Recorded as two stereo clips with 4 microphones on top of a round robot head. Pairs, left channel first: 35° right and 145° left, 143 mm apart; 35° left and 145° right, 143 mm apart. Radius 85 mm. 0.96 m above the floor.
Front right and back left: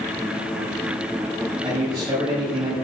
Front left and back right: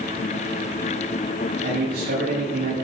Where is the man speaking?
150° right, 8 m.